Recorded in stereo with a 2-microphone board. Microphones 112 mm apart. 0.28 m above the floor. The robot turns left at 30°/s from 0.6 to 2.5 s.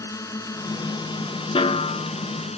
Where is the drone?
150° left; by 2.6 s 90° left.